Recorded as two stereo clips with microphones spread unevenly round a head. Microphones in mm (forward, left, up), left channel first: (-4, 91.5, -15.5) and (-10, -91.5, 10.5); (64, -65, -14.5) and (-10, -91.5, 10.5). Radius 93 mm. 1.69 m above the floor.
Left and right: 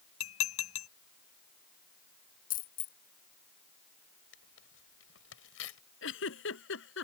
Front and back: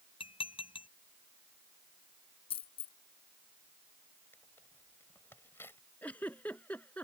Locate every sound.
0.2 s dishes clattering: 75° left
2.5 s a dropped coin: 40° left
4.3 s tearing paper: 100° left
6.0 s a giggle: 105° left